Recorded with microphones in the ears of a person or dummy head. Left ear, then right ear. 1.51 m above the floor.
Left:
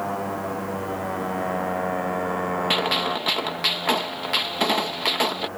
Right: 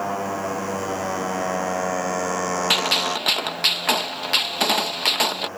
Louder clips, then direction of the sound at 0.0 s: Right 2 dB; 85° right.